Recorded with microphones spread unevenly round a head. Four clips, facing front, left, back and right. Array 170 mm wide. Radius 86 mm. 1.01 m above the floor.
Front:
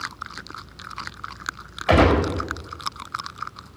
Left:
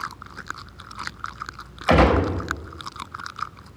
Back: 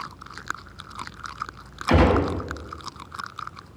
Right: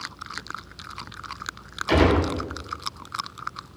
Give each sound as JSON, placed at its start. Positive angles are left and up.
{"t": 1.9, "sound": "a gunshot", "azimuth_deg": 35, "distance_m": 4.0}